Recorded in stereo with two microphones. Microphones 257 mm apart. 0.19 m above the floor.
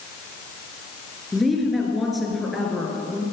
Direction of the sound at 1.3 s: Centre (ahead or behind).